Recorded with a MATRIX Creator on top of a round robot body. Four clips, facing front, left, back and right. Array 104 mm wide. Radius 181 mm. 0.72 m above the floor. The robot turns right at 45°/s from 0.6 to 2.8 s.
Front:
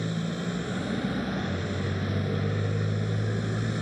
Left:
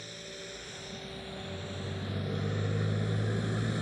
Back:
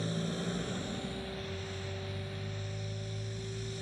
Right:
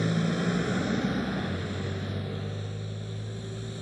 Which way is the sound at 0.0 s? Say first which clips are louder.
Right 18 dB, front 5 dB; 75° right.